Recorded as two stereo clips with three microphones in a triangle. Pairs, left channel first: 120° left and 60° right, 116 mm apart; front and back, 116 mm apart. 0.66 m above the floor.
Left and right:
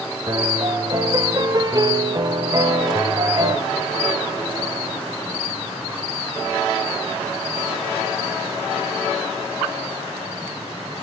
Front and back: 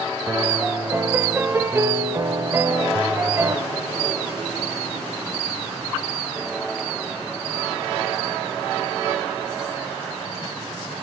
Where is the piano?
115° right, 1.9 m.